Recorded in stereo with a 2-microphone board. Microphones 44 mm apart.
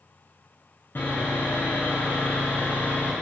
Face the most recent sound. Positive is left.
turn(degrees=50)  # may be behind; listen again after turning